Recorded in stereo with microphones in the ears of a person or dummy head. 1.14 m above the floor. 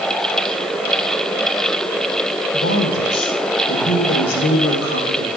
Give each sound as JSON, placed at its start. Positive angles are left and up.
{"t": 2.5, "sound": "a woman speaking", "side_deg": 70, "distance_m": 4.5}